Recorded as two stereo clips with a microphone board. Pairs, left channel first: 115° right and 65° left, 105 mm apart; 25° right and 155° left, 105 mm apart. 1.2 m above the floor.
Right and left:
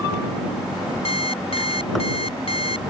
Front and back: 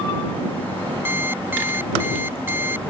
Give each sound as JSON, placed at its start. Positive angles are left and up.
{"t": 1.1, "sound": "an alarm clock", "azimuth_deg": -135}